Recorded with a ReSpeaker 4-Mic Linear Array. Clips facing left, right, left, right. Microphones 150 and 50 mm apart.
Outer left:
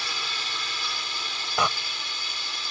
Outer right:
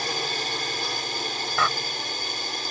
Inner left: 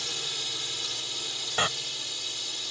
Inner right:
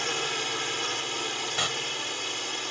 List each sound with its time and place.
0.0 s a drone: 50° right (ahead or behind)
1.6 s a door slam: 20° left (ahead or behind)